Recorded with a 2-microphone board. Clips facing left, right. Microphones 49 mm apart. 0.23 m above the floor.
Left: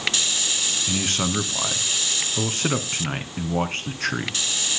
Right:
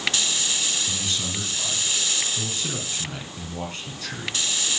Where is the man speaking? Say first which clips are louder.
Left 5 dB; 50° left (ahead or behind), 2 m.